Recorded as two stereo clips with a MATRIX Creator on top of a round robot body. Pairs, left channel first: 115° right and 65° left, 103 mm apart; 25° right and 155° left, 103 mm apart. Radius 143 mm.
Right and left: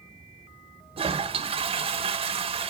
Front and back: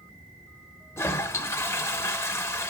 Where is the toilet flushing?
45° left, 1.1 m.